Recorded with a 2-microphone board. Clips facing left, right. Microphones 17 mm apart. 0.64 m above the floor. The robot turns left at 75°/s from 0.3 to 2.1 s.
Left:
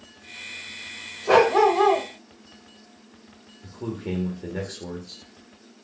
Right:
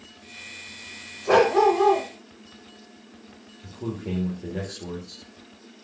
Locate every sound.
1.3 s a dog barking: 170° left, 0.7 m; by 2.1 s 110° left, 0.7 m
3.6 s a man speaking: 25° left (ahead or behind), 1.0 m